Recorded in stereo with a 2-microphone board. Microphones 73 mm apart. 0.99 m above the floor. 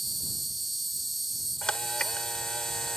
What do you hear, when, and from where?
0.0 s an insect: centre (ahead or behind)
1.6 s a camera shutter: 15° left (ahead or behind)